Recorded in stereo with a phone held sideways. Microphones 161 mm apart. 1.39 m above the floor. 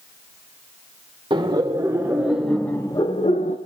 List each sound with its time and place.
1.3 s laughter: 30° right (ahead or behind), 1.5 m; by 3.6 s 55° left (ahead or behind), 0.9 m